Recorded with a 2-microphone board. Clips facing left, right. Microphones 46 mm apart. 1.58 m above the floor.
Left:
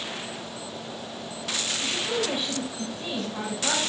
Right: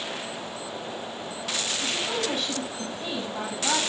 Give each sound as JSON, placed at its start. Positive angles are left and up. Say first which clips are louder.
{"t": 1.8, "sound": "a woman speaking", "louder": "left 2 dB", "side_deg": 15, "distance_m": 7.0}